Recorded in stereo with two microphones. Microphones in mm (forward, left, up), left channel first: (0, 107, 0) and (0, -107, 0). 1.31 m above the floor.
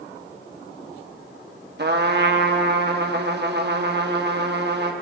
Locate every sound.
1.8 s a trumpet: 55° right (ahead or behind), 1.0 m